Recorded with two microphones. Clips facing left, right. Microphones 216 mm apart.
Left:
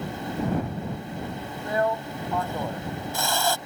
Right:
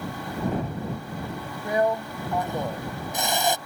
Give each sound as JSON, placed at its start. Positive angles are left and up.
{"t": 1.6, "sound": "a drill", "side_deg": -20}